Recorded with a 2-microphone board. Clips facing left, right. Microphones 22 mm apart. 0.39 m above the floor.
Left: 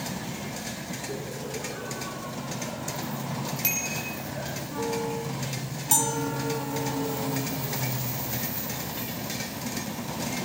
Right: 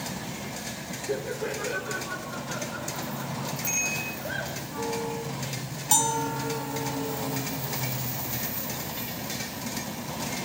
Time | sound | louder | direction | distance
1.1 | laughter | right 8 dB | 70° right (ahead or behind) | 5 m
3.6 | a bicycle bell | right 2 dB | 60° left (ahead or behind) | 10 m
5.9 | a bell | right 2 dB | 15° right (ahead or behind) | 4 m